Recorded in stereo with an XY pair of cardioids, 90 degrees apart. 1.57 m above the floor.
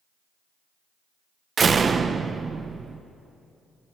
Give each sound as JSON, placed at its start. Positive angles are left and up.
{"t": 1.6, "sound": "a door slam", "azimuth_deg": -45, "distance_m": 1.0}